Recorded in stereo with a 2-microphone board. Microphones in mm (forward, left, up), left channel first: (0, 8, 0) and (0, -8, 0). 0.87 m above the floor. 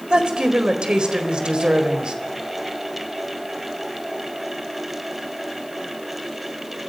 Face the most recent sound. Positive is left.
turn(degrees=-60)  # may be behind; listen again after turning